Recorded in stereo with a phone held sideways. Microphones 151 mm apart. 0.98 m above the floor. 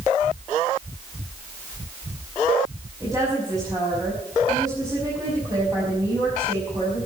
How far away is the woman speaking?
About 6 m.